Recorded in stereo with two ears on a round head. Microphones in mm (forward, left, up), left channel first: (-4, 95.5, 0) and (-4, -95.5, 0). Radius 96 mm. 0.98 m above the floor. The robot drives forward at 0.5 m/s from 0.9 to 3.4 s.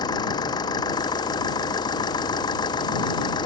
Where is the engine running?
20° left (ahead or behind).